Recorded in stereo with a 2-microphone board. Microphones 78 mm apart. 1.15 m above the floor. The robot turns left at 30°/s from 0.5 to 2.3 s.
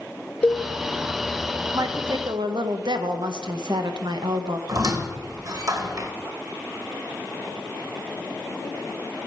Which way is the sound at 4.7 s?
50° right (ahead or behind).